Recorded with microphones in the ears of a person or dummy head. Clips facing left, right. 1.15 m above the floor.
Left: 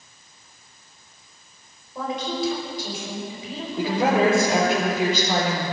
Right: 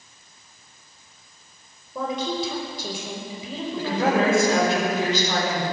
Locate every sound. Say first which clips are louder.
1.9 s a woman speaking: right 1 dB; 80° right, 5 m
3.8 s a woman speaking: left 2 dB; 5° left (ahead or behind), 4 m